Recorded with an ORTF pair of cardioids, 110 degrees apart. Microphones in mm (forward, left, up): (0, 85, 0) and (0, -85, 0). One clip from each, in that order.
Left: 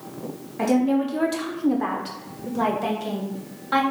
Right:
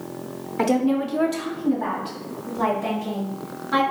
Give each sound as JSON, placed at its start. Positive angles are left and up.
{"t": 0.6, "sound": "a woman speaking", "azimuth_deg": -30, "distance_m": 0.6}